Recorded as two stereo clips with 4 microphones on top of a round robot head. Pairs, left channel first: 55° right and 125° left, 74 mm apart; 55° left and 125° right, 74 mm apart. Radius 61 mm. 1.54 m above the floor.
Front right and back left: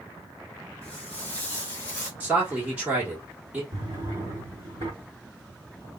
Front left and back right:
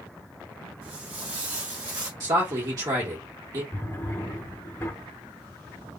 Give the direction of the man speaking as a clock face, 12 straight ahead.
5 o'clock.